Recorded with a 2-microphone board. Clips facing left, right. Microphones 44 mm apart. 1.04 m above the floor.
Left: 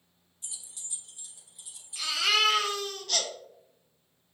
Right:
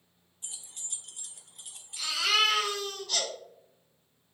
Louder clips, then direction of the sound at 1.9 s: Left 1 dB; 65° left (ahead or behind).